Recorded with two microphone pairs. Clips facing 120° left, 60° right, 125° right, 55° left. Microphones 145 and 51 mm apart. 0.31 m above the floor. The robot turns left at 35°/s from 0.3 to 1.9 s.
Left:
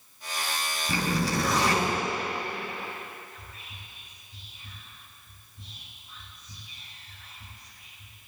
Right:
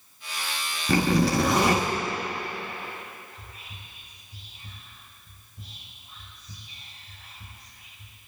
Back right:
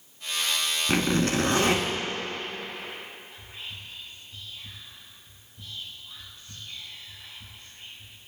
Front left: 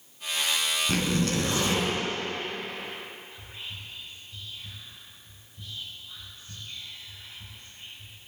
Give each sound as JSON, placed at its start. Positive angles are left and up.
{"t": 0.9, "sound": "a zipper", "azimuth_deg": -60, "distance_m": 2.0}
{"t": 3.3, "sound": "whispering", "azimuth_deg": -30, "distance_m": 5.5}